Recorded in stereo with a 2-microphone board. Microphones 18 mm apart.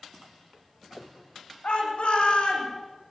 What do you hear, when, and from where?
1.6 s a shout: 80° left, 5.5 m; by 2.7 s 75° left (ahead or behind), 6 m